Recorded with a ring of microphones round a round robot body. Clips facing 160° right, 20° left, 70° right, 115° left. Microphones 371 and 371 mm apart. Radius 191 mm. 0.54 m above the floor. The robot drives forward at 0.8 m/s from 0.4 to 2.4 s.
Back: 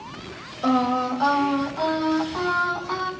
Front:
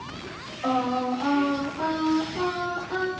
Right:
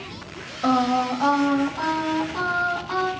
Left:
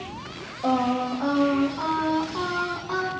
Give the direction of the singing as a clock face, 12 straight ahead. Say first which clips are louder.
Back 4 dB, right 2 dB; 4 o'clock.